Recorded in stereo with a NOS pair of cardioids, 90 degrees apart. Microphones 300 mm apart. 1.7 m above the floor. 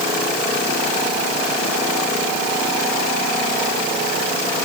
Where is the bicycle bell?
I don't hear a bicycle bell.